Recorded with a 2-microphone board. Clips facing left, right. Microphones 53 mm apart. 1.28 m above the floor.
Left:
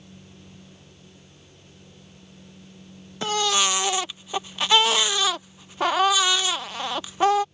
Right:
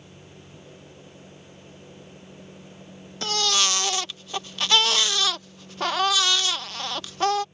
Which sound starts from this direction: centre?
A baby crying, at 3.2 s.